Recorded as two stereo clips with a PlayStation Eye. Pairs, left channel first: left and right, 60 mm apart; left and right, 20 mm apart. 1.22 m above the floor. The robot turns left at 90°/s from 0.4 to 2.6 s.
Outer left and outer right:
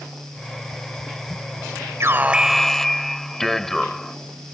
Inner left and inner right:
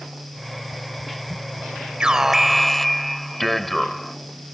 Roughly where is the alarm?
Behind right.